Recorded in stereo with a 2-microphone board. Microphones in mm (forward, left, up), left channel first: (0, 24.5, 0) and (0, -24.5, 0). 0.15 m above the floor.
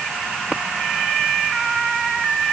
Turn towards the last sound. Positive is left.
No sound to turn to.